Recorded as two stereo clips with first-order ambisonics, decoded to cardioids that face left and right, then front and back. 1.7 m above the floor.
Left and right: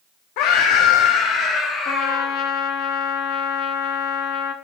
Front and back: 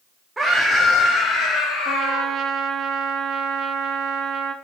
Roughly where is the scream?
Left.